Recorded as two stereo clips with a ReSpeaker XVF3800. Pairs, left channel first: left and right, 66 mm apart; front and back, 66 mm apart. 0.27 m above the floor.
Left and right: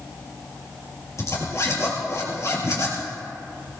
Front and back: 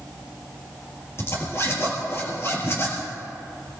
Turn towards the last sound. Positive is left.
turn(degrees=45)